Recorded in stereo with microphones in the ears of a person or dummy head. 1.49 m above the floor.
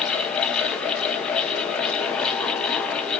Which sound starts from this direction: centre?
A fan, at 0.0 s.